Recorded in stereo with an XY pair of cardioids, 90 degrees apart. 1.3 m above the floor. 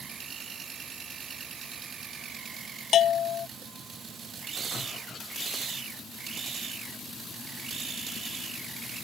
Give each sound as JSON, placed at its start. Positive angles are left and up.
{"t": 2.9, "sound": "a bell", "azimuth_deg": 65}